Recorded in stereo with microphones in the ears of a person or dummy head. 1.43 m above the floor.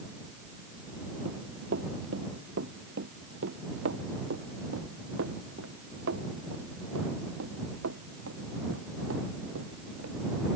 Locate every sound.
1.2 s running footsteps: 60° right (ahead or behind); by 10.5 s 75° right (ahead or behind)